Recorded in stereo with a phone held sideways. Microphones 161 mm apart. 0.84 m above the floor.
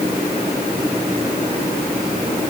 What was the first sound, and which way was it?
Only background noise.